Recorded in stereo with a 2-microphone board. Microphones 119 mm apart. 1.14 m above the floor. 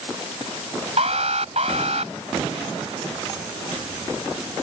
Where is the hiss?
No hiss in this recording.